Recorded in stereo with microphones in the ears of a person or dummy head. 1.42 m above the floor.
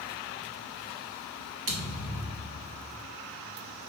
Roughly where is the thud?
Right.